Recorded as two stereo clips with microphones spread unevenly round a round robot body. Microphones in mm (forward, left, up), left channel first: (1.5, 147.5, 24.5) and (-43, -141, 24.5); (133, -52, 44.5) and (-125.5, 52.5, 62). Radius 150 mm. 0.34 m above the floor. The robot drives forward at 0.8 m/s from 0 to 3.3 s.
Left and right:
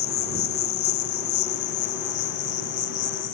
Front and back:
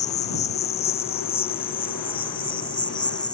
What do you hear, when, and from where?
0.0 s an insect: 45° left; by 3.4 s 55° left